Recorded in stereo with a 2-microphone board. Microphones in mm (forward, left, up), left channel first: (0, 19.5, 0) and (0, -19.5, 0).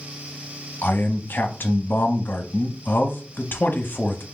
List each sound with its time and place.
0.8 s a man speaking: 60° left (ahead or behind), 0.6 m